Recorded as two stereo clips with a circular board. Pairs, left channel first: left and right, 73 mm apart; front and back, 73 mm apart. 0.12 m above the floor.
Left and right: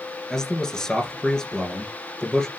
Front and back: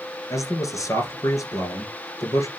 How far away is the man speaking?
About 1.6 m.